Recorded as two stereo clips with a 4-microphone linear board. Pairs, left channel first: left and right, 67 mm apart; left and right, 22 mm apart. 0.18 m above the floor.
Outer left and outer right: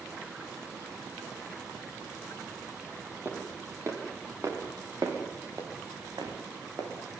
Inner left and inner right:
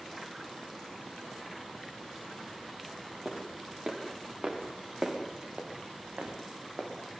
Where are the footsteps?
35° right (ahead or behind), 5 m; by 6.9 s 80° right, 5 m.